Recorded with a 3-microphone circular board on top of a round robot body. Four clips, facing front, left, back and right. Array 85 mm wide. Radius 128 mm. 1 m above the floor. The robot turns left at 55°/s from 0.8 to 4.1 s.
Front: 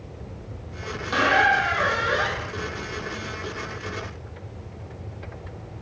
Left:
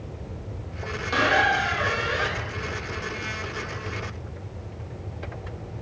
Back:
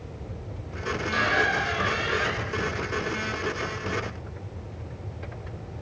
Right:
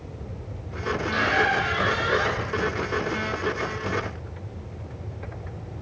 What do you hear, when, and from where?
1.1 s a squeak: 30° left, 1.4 m; by 2.5 s 45° right, 1.4 m